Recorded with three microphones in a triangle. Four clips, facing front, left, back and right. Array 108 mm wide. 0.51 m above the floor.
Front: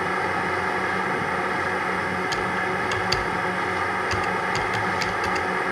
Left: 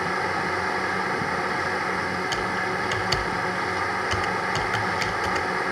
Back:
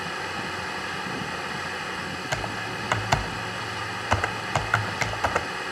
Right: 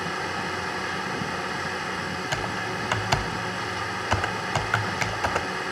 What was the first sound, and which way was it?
A drone, 30° left.